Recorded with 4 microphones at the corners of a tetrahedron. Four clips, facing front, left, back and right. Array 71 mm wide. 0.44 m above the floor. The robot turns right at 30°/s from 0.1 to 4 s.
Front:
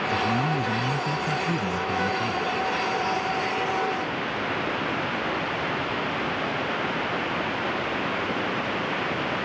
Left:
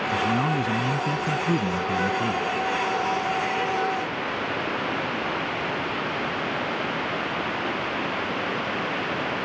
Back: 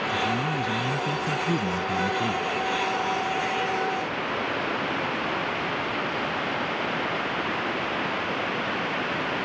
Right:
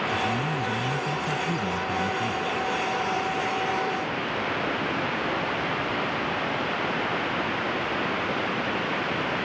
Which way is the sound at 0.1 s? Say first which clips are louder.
Left 3 dB, front 3 dB; 65° left.